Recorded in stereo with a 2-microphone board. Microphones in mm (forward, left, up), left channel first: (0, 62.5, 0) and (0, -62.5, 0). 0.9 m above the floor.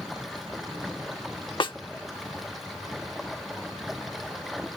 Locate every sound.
0.0 s running water: centre (ahead or behind)
1.6 s a snare drum: 40° left (ahead or behind)